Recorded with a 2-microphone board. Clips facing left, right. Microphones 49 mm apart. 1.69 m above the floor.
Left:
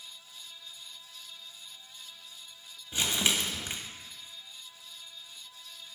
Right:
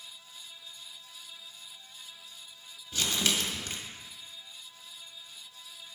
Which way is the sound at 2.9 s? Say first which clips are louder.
Left 1 dB; 25° left (ahead or behind).